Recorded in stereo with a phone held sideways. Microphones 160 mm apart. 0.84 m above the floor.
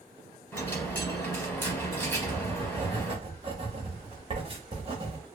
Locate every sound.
0.5 s a dropped coin: 15° left (ahead or behind), 1.0 m
2.1 s writing: 35° right (ahead or behind), 0.9 m